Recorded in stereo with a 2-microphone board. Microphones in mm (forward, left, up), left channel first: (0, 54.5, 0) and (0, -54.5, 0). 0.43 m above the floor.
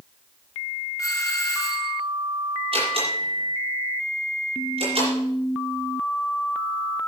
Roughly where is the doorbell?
Left.